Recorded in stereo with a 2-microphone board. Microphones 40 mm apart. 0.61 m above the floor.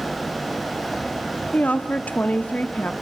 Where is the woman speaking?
40° left (ahead or behind), 0.9 m.